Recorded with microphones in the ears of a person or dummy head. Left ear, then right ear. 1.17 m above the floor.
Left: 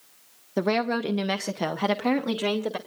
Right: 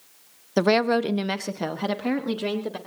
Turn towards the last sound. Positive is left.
turn(degrees=25)  # may be behind; listen again after turning